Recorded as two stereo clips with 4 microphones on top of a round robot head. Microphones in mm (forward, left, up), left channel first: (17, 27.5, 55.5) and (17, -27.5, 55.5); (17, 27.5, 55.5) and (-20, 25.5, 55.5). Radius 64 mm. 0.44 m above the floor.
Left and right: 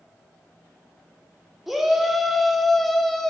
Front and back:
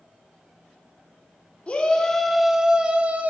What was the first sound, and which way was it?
A shout, 5° right.